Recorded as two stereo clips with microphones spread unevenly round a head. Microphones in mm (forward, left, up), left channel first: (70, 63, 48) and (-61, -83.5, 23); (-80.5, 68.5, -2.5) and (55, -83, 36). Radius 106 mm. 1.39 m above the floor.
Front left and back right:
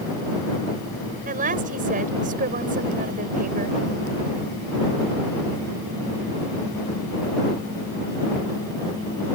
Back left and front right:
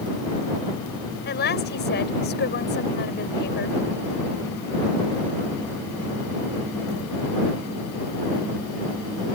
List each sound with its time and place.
1.2 s a woman speaking: 175° left